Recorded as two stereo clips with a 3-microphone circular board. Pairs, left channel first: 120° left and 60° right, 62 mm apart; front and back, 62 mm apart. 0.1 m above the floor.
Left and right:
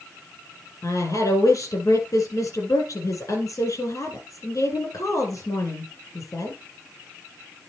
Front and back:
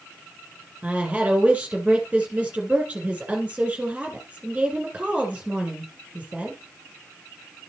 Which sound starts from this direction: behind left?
A woman speaking, at 0.8 s.